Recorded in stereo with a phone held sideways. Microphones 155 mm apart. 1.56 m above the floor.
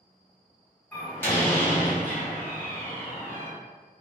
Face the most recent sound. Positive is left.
turn(degrees=15)  # may be behind; listen again after turning